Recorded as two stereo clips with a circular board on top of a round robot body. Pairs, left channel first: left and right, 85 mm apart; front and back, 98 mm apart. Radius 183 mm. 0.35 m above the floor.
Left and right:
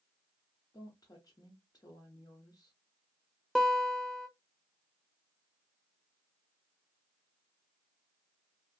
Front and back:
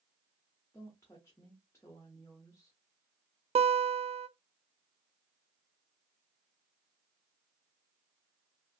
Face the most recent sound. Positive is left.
turn(degrees=175)